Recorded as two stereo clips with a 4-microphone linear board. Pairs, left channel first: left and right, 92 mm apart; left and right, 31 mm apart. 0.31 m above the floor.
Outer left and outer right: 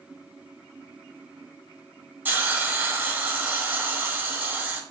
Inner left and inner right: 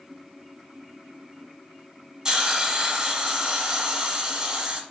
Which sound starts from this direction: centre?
A hiss, at 2.2 s.